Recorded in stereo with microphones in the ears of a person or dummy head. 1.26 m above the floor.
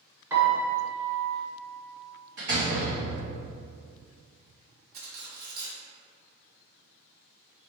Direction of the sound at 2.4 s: 55° right (ahead or behind).